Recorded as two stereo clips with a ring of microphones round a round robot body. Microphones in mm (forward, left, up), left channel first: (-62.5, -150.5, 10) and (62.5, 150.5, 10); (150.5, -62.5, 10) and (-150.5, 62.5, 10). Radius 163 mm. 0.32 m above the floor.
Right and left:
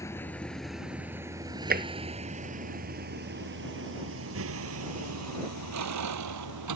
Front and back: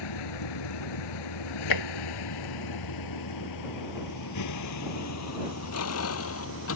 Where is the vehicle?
30° right; by 6.8 s 30° left.